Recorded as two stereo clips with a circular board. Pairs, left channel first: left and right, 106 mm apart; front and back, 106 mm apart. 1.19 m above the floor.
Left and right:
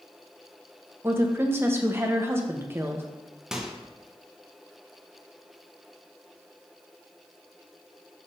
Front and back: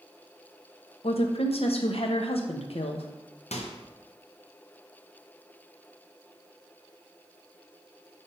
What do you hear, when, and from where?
1.0 s a woman speaking: 25° right, 0.9 m
3.5 s a microwave: 5° right, 0.8 m